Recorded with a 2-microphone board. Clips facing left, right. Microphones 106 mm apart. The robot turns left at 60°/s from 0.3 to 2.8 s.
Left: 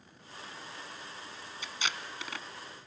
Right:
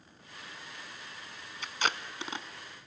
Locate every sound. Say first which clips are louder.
1.6 s tape being pulled: right 5 dB; 60° right (ahead or behind), 0.7 m; by 2.5 s 20° right (ahead or behind), 0.7 m